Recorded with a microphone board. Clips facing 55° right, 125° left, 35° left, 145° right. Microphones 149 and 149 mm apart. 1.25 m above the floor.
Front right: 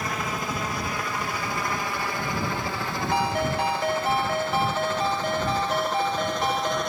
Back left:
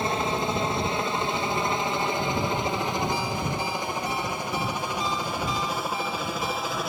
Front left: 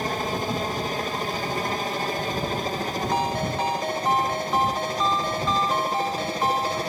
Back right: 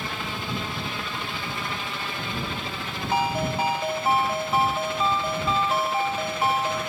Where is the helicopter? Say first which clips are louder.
Back left 4 dB, front left 6 dB; 70° left; by 6.9 s 40° left.